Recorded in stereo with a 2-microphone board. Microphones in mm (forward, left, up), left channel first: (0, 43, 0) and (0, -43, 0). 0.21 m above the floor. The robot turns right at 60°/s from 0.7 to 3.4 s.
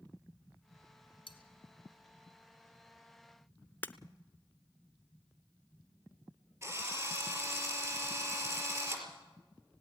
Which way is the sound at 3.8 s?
25° left (ahead or behind).